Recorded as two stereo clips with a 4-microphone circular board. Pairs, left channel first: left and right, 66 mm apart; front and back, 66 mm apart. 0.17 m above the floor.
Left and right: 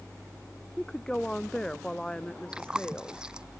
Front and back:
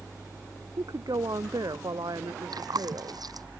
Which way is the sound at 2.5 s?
165° right.